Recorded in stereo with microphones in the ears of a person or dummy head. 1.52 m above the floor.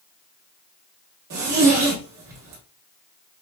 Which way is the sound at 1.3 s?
45° right (ahead or behind).